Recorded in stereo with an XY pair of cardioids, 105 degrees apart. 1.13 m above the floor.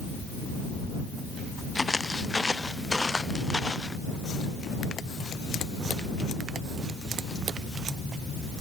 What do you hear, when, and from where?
1.8 s footsteps: 15° left